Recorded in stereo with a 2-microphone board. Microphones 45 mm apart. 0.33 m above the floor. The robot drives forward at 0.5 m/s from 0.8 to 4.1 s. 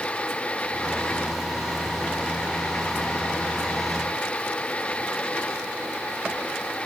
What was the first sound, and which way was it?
Only background noise.